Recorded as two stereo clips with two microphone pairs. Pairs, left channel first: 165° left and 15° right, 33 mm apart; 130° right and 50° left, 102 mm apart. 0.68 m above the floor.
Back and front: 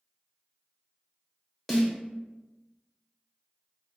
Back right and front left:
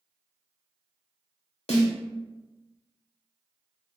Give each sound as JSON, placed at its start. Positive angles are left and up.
{"t": 1.7, "sound": "a snare drum", "azimuth_deg": -125, "distance_m": 0.9}